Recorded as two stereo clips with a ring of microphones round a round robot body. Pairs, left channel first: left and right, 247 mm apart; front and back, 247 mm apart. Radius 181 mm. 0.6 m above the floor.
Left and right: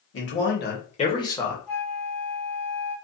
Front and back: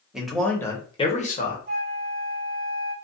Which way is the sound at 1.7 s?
175° left.